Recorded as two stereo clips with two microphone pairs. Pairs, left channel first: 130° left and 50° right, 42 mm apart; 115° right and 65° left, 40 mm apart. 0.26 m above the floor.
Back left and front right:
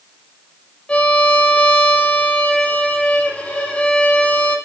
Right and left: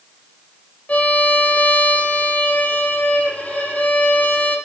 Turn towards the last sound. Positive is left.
turn(degrees=-170)